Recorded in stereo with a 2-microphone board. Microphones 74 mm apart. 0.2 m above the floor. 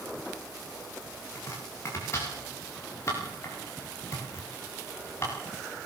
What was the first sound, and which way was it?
Chopping, 35° left (ahead or behind).